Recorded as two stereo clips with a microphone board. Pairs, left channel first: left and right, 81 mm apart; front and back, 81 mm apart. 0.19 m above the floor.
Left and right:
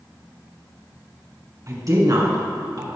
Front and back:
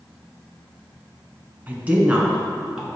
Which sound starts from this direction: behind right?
A woman speaking, at 1.7 s.